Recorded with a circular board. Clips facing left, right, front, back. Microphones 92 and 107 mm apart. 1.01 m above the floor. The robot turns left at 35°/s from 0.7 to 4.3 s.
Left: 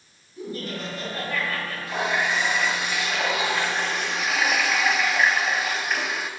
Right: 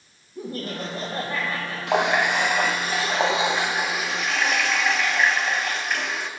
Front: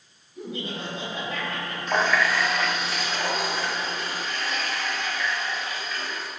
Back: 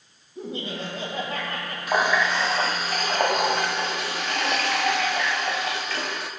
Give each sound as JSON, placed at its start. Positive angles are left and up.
{"t": 0.3, "sound": "laughter", "azimuth_deg": -125, "distance_m": 4.5}
{"t": 1.9, "sound": "a running tap", "azimuth_deg": -100, "distance_m": 0.8}